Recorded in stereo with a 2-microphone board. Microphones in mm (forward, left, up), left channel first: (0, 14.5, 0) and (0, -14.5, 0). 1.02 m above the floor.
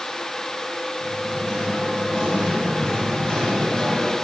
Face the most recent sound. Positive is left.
turn(degrees=25)  # may be behind; listen again after turning